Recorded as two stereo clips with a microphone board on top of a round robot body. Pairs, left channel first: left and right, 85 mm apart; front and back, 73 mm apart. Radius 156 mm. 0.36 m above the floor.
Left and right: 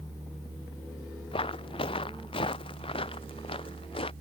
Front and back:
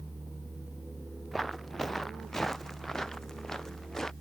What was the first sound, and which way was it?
Footsteps, 90° left.